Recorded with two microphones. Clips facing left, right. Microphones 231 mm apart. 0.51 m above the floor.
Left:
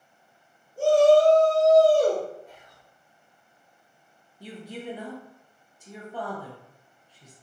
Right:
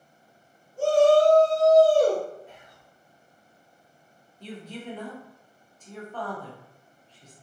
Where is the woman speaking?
10° left (ahead or behind), 0.7 m.